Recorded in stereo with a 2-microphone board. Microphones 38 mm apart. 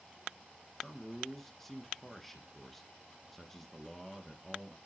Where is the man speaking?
5° left (ahead or behind), 1.4 m.